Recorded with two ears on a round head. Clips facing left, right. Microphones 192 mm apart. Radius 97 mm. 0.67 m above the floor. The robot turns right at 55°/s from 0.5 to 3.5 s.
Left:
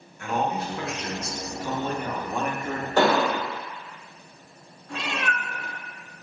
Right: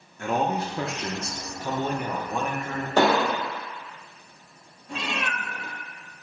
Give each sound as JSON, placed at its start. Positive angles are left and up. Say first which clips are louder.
{"t": 0.2, "sound": "a man speaking", "louder": "right 2 dB", "side_deg": -30, "distance_m": 0.5}
{"t": 3.0, "sound": "an explosion", "louder": "even", "side_deg": -20, "distance_m": 1.7}
{"t": 4.9, "sound": "a cat meowing", "louder": "left 1 dB", "side_deg": -25, "distance_m": 1.7}